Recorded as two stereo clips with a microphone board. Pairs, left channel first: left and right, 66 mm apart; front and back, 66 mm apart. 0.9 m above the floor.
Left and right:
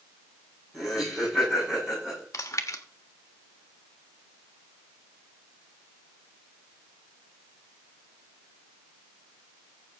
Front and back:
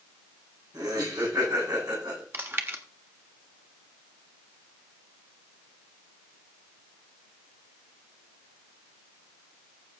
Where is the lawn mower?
I don't hear a lawn mower.